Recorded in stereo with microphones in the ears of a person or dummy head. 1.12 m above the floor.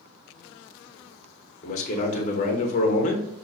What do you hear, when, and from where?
1.6 s a man speaking: 40° left (ahead or behind), 1.0 m